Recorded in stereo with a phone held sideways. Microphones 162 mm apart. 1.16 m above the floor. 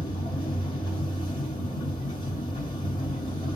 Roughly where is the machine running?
Left.